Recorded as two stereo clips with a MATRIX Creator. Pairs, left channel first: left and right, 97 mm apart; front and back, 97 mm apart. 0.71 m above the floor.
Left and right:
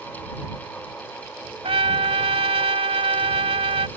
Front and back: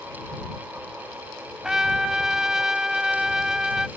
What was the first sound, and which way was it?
A trumpet, 95° right.